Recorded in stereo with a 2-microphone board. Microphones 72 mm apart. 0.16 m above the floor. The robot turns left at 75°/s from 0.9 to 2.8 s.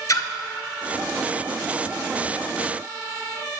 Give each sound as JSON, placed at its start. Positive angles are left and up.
{"t": 0.1, "sound": "a splash", "side_deg": 50, "distance_m": 0.5}